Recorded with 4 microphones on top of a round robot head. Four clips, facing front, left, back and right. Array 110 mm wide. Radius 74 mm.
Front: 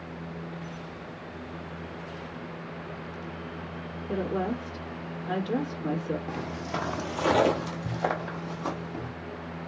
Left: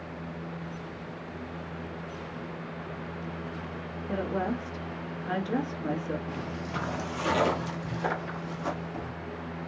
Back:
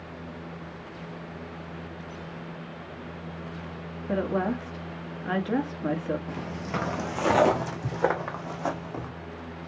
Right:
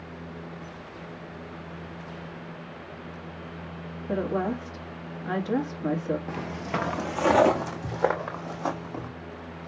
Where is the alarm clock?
I don't hear an alarm clock.